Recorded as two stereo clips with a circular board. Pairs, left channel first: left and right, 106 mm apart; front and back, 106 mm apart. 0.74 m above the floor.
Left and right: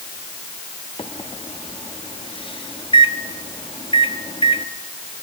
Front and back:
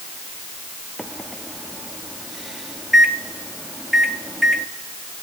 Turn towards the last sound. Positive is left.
turn(degrees=90)